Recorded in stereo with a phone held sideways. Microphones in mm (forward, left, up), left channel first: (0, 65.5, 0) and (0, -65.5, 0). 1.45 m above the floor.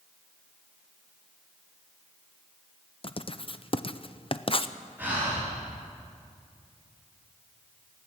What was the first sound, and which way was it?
Writing, 45° left (ahead or behind).